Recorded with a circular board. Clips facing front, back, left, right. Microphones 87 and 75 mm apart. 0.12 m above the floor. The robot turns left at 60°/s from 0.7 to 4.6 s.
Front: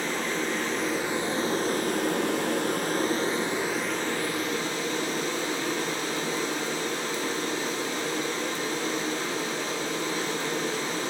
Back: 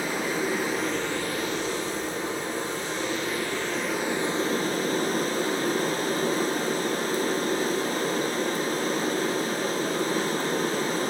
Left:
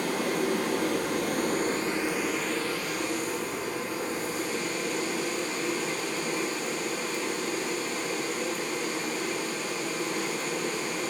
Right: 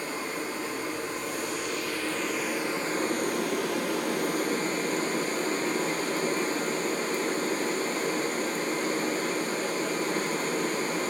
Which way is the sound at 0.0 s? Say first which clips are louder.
Back 2 dB, left 5 dB; 100° left.